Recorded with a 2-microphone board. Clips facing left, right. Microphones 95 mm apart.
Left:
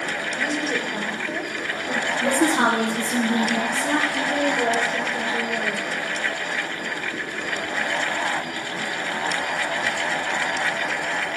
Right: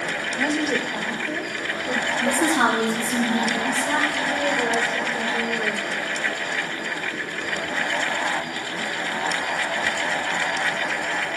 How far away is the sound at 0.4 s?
About 1.0 m.